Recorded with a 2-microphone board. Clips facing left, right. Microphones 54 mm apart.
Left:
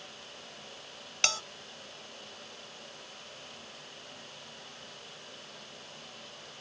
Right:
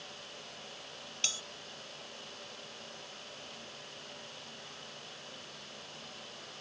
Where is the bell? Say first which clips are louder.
Left 9 dB; 70° left (ahead or behind).